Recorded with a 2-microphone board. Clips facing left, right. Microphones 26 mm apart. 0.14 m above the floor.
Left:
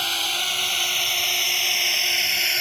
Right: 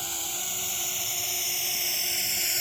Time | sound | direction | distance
0.0 | a drone | 60° left (ahead or behind) | ?